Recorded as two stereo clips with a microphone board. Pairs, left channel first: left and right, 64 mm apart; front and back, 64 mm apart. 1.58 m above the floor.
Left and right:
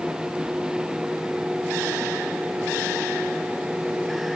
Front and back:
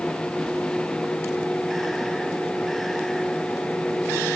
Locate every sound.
Only background noise.